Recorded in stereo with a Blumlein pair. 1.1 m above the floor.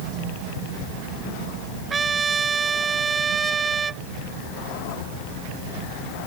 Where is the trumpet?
15° right.